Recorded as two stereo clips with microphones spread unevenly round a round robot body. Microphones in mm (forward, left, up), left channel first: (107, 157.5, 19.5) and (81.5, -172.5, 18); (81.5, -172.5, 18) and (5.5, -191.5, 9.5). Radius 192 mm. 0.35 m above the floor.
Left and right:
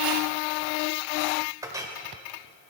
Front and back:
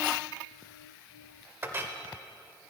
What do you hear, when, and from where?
1.6 s a clink: 170° right, 1.0 m